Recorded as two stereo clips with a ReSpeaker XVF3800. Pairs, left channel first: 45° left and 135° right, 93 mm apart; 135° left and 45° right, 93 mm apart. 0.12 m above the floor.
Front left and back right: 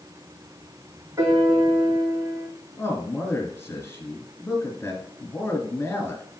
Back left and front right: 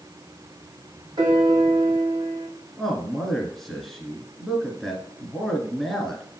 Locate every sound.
1.2 s a piano: 80° right, 1.7 m
2.8 s a man speaking: 50° left, 1.5 m